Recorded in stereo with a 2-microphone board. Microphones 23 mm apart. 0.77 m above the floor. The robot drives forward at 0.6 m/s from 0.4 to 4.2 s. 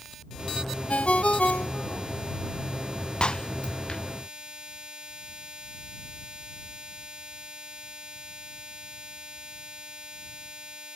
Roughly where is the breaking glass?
Left.